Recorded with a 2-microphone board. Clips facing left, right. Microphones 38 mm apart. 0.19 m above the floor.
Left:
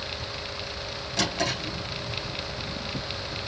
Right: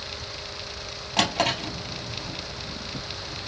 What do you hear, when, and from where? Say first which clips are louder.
1.2 s a drawer: right 4 dB; 55° right (ahead or behind), 2.5 m